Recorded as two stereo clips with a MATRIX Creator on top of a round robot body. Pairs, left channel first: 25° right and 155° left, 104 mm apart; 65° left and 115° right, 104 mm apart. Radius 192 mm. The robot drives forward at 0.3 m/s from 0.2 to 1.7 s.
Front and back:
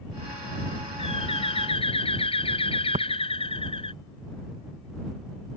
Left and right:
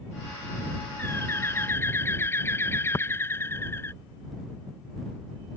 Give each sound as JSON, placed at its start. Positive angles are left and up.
{"t": 1.0, "sound": "a bird", "azimuth_deg": 0}
{"t": 2.9, "sound": "tapping", "azimuth_deg": 135}